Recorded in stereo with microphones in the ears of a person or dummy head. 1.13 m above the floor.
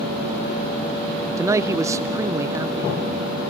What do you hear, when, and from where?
1.4 s a man speaking: 20° right (ahead or behind), 0.5 m